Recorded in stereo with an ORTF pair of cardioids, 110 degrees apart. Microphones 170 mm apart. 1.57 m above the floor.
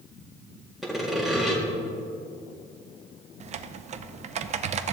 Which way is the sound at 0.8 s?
Straight ahead.